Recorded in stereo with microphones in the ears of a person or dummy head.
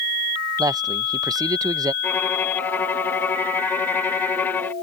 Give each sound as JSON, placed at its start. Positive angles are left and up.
{"t": 0.6, "sound": "a man speaking", "side_deg": -20}
{"t": 2.0, "sound": "a violin", "side_deg": 10}